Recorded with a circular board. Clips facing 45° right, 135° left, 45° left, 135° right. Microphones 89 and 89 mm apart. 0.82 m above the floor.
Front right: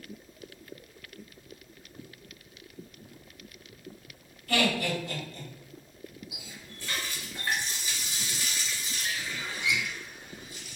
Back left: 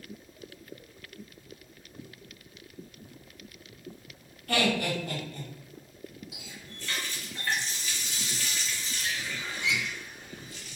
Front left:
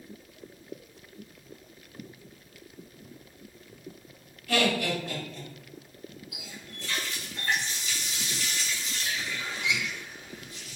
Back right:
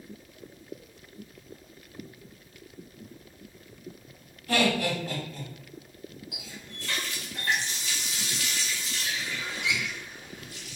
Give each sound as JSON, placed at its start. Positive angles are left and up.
{"t": 4.5, "sound": "laughter", "azimuth_deg": 170, "distance_m": 1.7}
{"t": 6.3, "sound": "a running tap", "azimuth_deg": -120, "distance_m": 0.8}